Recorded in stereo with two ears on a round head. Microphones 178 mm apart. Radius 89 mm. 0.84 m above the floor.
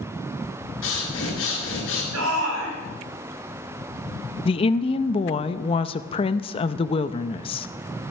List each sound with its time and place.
0.8 s breathing: 70° left (ahead or behind), 6 m
2.1 s a shout: 75° right (ahead or behind), 5.5 m
4.5 s a woman speaking: 30° left (ahead or behind), 0.6 m